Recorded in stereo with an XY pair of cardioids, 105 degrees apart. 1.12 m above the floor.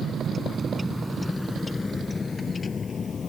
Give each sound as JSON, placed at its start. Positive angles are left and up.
{"t": 0.0, "sound": "a vehicle", "azimuth_deg": -55}